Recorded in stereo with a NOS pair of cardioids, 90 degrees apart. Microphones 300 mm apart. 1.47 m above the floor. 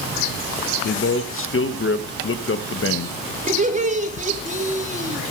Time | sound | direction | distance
0.8 | a man speaking | 45° left | 1.6 m
3.5 | laughter | 25° right | 3.5 m